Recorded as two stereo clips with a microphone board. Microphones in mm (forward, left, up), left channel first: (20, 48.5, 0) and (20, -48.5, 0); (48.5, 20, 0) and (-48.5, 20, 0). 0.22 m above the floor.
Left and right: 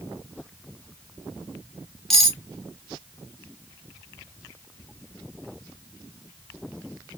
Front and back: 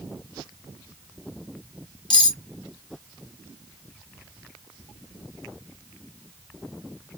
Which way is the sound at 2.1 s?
5° left.